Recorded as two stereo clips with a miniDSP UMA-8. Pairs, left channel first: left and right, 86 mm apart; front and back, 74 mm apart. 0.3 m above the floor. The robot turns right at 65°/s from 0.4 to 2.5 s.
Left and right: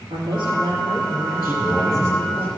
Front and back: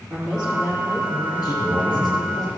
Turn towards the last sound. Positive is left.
turn(degrees=35)